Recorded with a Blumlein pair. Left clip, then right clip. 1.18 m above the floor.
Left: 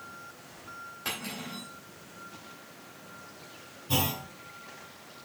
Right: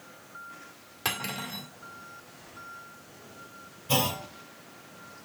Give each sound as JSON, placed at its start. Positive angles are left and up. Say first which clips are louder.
{"t": 1.1, "sound": "cutlery clinking", "louder": "right 5 dB", "azimuth_deg": -40, "distance_m": 1.8}
{"t": 3.9, "sound": "a clunk", "louder": "right 3 dB", "azimuth_deg": -65, "distance_m": 2.5}